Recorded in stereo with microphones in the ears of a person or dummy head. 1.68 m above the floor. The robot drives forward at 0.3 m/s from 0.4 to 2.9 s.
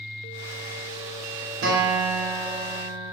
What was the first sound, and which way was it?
A guitar, 75° right (ahead or behind).